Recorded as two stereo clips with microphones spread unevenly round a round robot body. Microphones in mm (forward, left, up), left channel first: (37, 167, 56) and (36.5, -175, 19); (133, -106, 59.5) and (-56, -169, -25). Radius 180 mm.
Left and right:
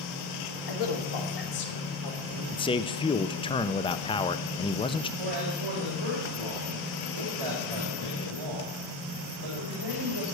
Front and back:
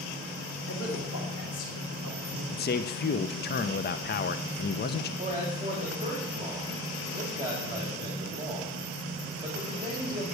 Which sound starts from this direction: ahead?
A man speaking, at 2.5 s.